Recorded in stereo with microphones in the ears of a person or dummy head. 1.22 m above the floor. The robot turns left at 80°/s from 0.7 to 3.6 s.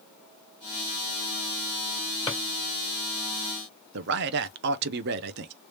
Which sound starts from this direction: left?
A drawer, at 2.3 s.